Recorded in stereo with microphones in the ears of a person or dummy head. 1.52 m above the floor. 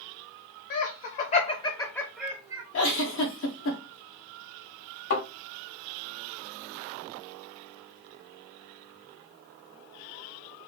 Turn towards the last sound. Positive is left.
turn(degrees=60)  # may be behind; listen again after turning